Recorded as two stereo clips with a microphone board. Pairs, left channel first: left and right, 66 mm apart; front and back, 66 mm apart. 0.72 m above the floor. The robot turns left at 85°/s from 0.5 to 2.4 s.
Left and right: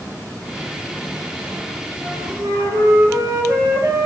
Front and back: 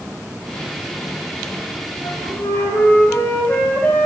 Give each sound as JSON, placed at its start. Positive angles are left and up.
{"t": 2.0, "sound": "a flute", "azimuth_deg": -20, "distance_m": 1.3}